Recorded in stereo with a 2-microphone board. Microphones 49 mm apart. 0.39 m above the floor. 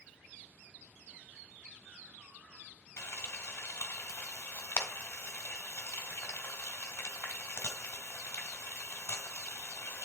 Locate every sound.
3.0 s frying: 60° left (ahead or behind), 2.0 m